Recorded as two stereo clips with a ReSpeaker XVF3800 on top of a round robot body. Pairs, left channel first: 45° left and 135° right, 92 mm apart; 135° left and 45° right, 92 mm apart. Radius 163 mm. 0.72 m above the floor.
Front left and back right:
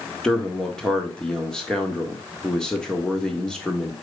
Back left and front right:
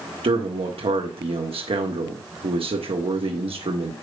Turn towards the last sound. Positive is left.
turn(degrees=-35)